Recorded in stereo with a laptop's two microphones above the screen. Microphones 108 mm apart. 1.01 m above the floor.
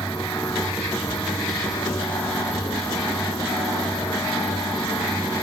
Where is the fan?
30° left (ahead or behind), 9 m.